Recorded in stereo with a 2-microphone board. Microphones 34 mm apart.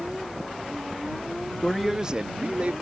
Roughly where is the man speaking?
Left.